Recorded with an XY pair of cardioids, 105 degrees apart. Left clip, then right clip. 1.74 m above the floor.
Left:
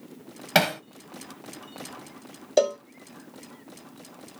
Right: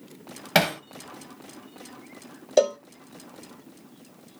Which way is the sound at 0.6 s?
10° right.